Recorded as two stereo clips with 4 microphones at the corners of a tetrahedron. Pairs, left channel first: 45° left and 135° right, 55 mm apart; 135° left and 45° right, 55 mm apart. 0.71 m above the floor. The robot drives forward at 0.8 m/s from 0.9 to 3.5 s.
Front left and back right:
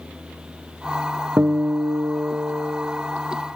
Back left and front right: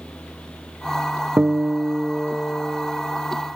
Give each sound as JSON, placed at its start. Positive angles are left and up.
{"t": 1.4, "sound": "a guitar", "azimuth_deg": -100, "distance_m": 0.8}